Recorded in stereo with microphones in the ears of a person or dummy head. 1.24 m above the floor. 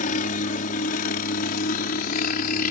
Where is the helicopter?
45° left (ahead or behind); by 2.7 s 50° left (ahead or behind).